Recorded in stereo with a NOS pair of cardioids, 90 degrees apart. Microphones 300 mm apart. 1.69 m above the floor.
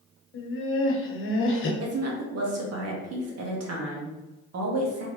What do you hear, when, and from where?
0.3 s laughter: 40° left, 1.3 m
1.8 s a woman speaking: 55° right, 1.5 m